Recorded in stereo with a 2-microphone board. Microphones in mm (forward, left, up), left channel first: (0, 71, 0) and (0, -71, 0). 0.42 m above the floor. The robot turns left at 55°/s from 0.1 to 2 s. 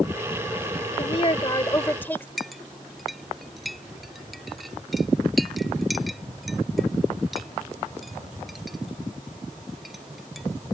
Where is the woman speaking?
75° left; by 2.3 s 20° left.